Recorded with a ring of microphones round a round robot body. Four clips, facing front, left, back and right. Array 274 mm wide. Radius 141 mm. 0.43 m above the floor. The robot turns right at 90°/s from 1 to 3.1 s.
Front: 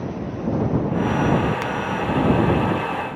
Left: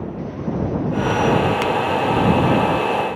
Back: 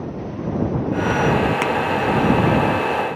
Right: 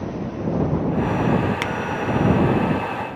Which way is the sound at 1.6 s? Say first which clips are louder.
Left 6 dB, back 5 dB; 170° right.